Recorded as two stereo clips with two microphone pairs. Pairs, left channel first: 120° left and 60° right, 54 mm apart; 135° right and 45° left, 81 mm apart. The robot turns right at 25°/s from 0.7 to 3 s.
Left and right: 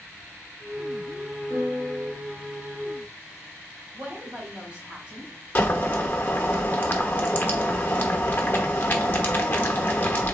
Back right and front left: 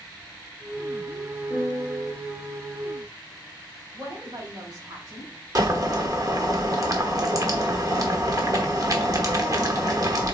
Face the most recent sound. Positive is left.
turn(degrees=75)